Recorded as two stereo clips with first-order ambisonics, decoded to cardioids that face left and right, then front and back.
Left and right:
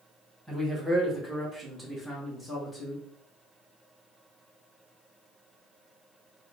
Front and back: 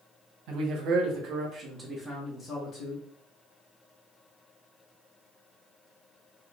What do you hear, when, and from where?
0.5 s a man speaking: 165° right, 1.2 m; by 3.0 s straight ahead, 0.9 m